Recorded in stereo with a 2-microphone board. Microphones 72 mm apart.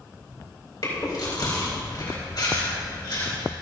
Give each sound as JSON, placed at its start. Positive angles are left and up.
{"t": 0.8, "sound": "chewing", "side_deg": 65, "distance_m": 4.5}